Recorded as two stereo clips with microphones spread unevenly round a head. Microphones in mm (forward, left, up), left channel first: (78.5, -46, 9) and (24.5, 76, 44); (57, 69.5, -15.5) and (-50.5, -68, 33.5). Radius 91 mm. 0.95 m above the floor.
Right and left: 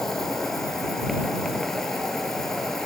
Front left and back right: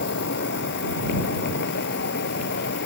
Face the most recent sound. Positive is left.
turn(degrees=20)